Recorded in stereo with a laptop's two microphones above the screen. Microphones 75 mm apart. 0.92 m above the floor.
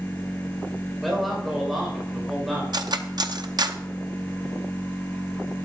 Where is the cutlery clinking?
65° right (ahead or behind), 0.7 m.